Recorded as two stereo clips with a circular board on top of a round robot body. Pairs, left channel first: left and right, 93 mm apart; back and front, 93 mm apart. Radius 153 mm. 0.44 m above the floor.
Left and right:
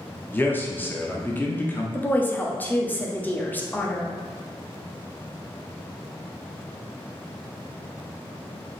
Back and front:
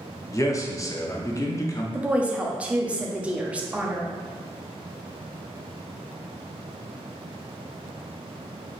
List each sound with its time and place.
0.3 s a man speaking: 150° left, 1.0 m
1.9 s a woman speaking: 55° left, 0.9 m